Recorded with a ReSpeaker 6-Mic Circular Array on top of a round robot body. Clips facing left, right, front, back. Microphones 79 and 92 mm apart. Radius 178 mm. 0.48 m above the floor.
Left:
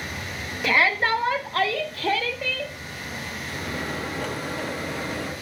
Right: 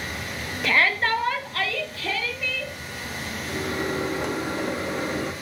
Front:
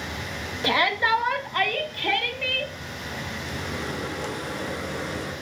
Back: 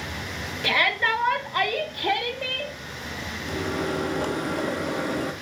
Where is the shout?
10° left, 0.8 m; by 2.7 s 125° left, 1.3 m.